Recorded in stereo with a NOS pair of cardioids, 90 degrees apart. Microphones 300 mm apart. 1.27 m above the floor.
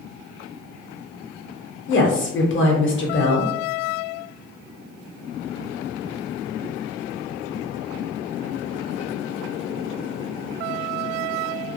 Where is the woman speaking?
40° left, 1.0 m.